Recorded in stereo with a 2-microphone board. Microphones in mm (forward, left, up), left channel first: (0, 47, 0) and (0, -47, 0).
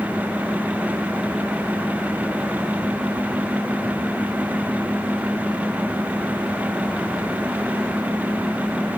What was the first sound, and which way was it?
Only background noise.